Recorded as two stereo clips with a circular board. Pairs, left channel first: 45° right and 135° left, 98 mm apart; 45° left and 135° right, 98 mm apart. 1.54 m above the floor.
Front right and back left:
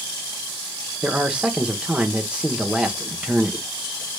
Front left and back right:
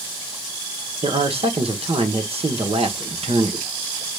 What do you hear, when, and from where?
1.0 s a man speaking: 145° right, 1.2 m